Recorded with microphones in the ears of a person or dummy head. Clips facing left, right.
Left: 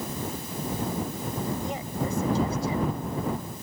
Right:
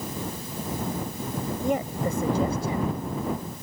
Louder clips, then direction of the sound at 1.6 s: Right 5 dB; 45° right (ahead or behind).